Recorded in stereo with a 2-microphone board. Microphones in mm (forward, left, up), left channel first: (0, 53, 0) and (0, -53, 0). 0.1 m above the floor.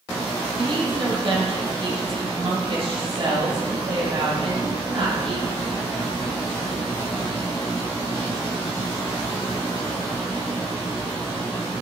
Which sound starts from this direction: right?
A woman speaking, at 0.6 s.